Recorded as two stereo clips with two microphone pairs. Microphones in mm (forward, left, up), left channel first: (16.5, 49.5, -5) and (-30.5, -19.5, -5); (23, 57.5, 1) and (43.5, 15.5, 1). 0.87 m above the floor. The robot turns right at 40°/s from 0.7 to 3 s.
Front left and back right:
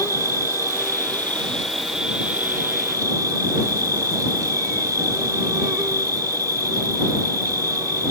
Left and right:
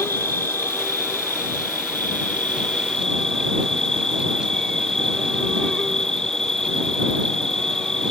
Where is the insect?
100° left; by 8.1 s 165° right.